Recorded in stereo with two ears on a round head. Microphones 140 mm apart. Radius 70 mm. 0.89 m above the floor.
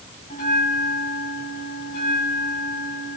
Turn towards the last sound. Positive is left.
turn(degrees=50)  # may be behind; listen again after turning